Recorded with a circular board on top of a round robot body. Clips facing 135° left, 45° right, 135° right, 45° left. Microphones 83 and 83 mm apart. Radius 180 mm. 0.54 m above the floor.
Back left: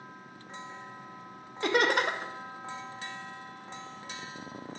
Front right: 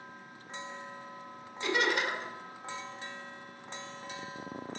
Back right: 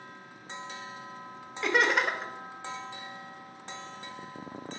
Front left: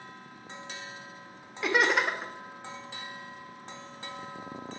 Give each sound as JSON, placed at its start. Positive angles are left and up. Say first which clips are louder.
{"t": 1.6, "sound": "laughter", "louder": "back left 4 dB, even", "azimuth_deg": 130, "distance_m": 0.9}